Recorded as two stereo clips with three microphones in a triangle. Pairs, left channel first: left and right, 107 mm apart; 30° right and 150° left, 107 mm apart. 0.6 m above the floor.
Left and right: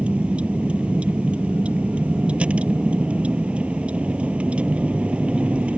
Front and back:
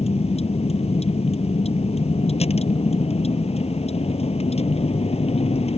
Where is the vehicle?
10° right.